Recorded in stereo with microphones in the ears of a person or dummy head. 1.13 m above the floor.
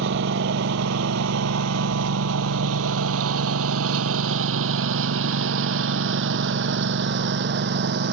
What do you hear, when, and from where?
0.0 s a lawn mower: 60° right (ahead or behind)